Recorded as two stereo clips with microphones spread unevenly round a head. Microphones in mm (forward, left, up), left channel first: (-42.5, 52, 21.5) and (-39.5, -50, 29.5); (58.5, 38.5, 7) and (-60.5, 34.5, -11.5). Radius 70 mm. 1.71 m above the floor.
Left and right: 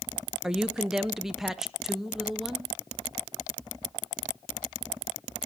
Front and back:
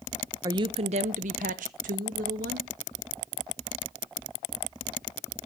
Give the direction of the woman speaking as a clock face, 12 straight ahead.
5 o'clock.